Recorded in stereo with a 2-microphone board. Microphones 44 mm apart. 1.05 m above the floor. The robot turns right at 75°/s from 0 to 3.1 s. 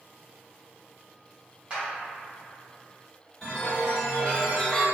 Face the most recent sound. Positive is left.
turn(degrees=20)  # may be behind; listen again after turning